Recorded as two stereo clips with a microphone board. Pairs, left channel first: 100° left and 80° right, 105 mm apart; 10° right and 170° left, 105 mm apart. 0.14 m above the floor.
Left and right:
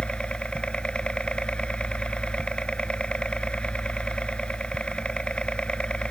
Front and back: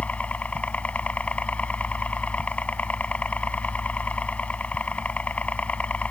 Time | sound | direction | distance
0.0 | a helicopter | 40° left | ?